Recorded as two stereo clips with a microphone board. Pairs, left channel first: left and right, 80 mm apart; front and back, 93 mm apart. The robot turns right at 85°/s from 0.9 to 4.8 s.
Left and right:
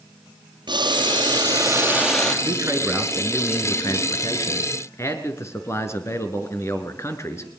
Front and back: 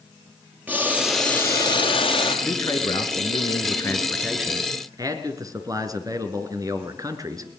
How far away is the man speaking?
About 3 m.